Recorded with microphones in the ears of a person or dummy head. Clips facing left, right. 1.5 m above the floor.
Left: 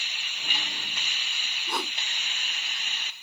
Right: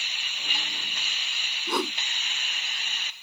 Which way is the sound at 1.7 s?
75° right (ahead or behind).